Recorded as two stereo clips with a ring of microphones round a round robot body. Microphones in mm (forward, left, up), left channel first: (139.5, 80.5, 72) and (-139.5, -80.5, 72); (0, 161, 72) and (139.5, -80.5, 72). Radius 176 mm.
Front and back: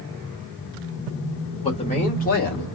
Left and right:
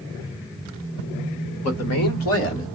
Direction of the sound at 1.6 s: 100° left.